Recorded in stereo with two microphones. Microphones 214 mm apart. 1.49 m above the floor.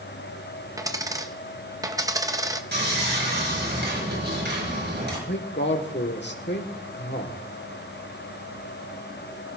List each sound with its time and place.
0.8 s a dropped coin: 15° right (ahead or behind), 0.7 m
2.7 s sawing: 55° right (ahead or behind), 5.5 m
5.3 s a man speaking: 55° left (ahead or behind), 1.5 m